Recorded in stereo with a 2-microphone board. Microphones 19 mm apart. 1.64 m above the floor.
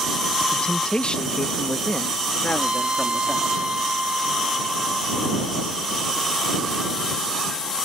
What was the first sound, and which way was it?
A man speaking, 55° left (ahead or behind).